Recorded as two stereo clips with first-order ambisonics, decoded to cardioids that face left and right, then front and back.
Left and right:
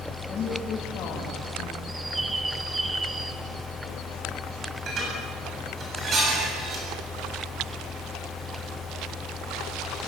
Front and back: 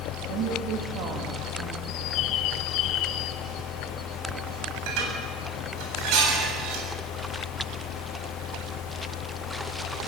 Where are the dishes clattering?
155° right, 8 m.